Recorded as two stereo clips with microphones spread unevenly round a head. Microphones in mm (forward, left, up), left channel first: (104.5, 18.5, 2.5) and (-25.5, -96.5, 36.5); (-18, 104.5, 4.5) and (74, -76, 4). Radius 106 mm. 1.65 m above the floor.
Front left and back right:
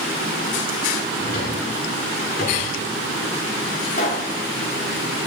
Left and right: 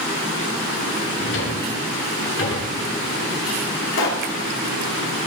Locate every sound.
1.2 s a drawer: 100° left, 7 m
3.9 s a pop: 100° left, 2.5 m